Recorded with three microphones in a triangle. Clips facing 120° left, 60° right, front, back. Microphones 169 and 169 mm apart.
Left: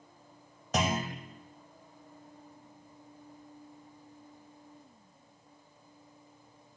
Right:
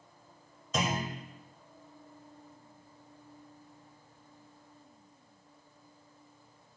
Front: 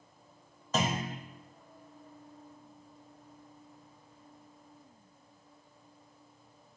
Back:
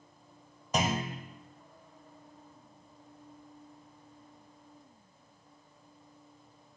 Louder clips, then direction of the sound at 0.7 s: Left 2 dB, back 1 dB; 105° left.